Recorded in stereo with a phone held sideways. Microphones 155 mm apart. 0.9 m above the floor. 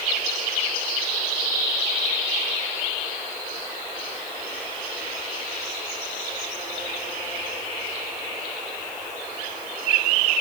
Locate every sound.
Only background noise.